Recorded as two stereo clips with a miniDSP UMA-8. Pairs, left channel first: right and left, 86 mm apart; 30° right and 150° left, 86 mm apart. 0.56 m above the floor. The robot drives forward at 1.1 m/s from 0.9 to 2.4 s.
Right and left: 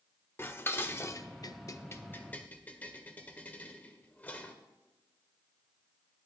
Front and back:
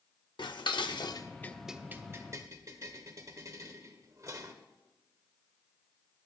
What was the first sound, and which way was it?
Dishes clattering, 30° right.